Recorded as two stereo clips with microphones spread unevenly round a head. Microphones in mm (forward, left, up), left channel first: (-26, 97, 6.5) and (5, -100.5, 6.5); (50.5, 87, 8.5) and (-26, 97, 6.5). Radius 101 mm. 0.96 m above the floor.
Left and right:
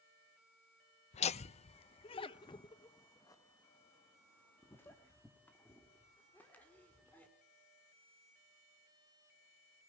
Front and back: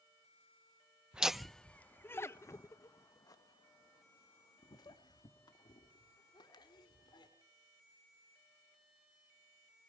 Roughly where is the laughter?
Left.